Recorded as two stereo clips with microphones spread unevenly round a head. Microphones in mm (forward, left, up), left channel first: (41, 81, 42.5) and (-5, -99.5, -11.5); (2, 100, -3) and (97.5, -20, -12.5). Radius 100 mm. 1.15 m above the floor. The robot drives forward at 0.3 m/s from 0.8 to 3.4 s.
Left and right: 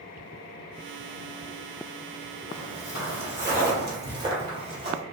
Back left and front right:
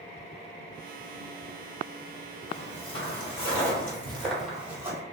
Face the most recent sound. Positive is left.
turn(degrees=-70)